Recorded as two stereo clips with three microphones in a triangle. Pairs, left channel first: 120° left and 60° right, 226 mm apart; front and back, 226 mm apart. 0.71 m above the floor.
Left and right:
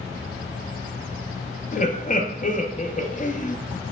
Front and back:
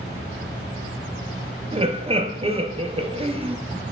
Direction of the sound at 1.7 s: 135° left.